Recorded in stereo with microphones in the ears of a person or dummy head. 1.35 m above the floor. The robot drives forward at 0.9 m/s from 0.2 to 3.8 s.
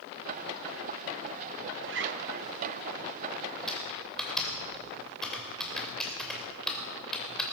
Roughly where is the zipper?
Right.